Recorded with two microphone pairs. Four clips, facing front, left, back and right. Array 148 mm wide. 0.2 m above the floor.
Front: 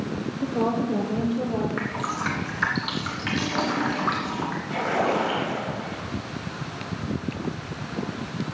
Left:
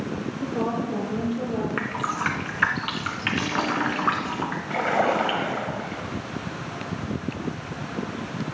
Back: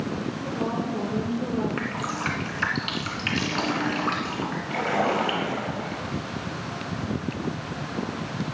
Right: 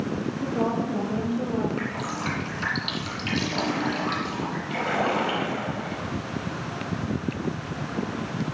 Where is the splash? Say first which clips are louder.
Left 3 dB, even; 90° left, 4.5 m.